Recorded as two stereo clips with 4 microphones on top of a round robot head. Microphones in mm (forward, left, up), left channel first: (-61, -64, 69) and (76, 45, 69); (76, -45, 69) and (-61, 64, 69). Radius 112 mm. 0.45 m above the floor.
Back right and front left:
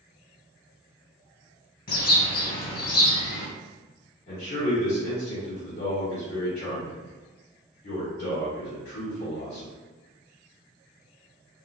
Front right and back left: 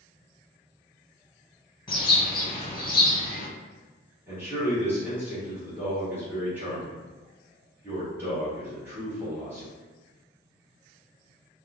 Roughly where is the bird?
Right.